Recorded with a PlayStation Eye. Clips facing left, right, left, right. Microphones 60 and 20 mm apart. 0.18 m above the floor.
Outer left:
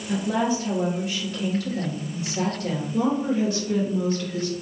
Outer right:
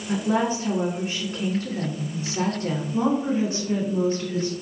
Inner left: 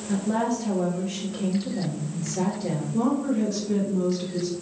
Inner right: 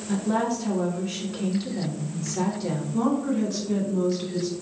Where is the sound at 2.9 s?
30° right (ahead or behind), 1.2 m.